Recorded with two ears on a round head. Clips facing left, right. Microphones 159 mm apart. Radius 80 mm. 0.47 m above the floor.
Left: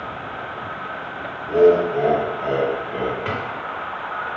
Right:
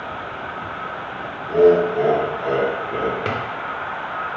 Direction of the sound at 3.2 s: 45° right (ahead or behind).